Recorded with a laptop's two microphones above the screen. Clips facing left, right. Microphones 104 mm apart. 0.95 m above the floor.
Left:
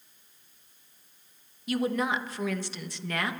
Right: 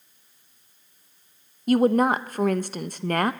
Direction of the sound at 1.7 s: 45° right (ahead or behind).